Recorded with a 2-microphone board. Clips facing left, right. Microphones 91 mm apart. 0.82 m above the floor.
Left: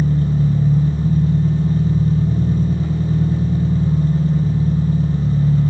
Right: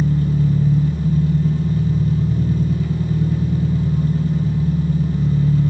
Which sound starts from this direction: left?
An engine running, at 0.0 s.